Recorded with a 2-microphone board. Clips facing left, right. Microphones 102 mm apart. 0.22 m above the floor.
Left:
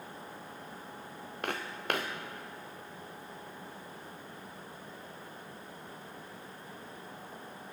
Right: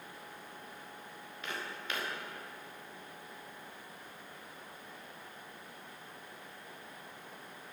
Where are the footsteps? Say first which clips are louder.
Left 6 dB; 55° left (ahead or behind), 1.6 m.